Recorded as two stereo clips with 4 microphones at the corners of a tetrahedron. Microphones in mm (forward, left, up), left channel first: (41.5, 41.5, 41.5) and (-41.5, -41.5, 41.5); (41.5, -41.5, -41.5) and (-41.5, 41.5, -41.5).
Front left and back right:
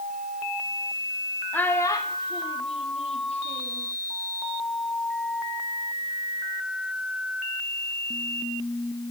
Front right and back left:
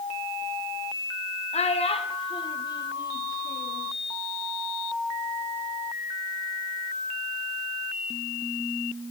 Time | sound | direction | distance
1.5 | a child speaking | 30° right | 0.7 m